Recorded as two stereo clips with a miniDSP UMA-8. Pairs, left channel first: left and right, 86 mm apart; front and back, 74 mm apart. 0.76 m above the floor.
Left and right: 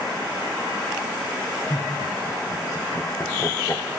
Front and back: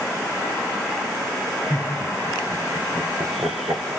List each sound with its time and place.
1.7 s laughter: 130° left, 3 m; by 3.8 s 150° left, 2.5 m